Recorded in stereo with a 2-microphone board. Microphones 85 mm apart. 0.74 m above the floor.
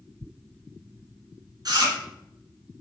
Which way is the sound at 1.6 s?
50° right (ahead or behind).